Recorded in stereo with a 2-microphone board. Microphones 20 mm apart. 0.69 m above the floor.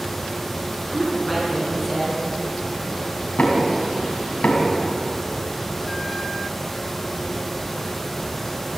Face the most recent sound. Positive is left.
turn(degrees=85)